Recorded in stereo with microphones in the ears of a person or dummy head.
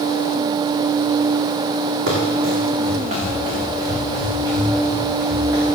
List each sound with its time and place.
2.1 s running footsteps: 50° right (ahead or behind), 4.5 m; by 5.8 s 15° right (ahead or behind), 8.5 m